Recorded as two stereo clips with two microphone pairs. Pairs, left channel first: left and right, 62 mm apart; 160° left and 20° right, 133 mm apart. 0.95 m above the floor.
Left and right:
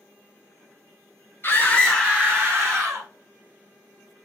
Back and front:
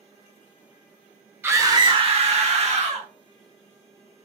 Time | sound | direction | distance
1.4 | a scream | 55° left | 0.9 m